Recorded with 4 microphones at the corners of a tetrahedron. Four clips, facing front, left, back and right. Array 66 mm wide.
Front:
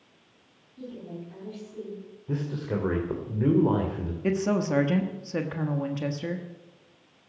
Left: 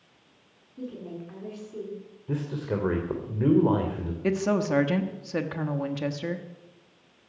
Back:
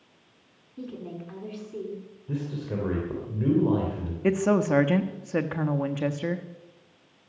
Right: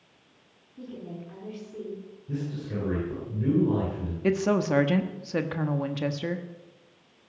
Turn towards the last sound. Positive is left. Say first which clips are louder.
# right 1 dB, back 3 dB
turn(degrees=170)